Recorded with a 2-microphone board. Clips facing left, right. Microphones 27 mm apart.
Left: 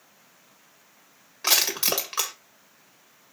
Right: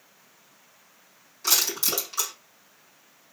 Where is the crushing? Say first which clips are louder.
Left 2 dB; 45° left (ahead or behind), 2 m.